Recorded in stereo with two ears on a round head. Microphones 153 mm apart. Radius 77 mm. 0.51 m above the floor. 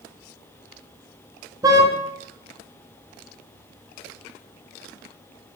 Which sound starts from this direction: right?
A car horn, at 1.6 s.